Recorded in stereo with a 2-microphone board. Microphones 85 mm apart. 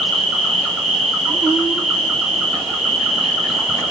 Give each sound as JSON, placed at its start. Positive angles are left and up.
{"t": 0.0, "sound": "an insect", "side_deg": 0, "distance_m": 1.1}